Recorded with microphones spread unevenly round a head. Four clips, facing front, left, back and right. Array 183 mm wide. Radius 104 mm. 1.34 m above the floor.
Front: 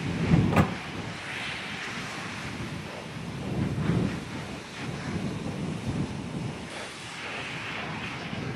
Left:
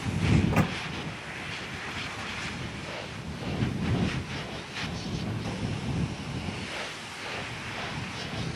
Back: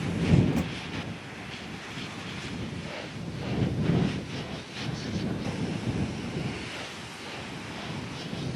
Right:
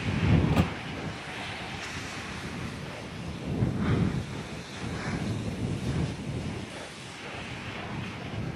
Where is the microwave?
15° left.